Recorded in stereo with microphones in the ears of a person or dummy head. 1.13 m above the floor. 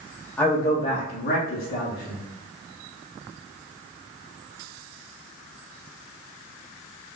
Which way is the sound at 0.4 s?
5° left (ahead or behind).